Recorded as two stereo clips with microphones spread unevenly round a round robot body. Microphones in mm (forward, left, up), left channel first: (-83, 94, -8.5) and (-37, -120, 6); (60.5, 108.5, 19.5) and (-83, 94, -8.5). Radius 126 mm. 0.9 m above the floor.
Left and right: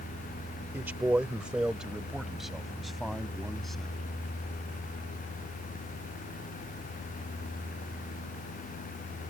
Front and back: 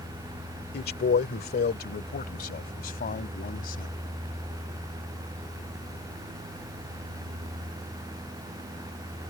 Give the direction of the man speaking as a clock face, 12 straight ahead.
12 o'clock.